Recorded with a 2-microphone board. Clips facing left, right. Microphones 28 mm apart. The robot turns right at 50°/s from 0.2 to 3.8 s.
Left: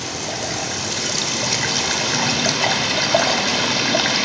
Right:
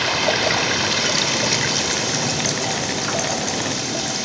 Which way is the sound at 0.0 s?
70° right.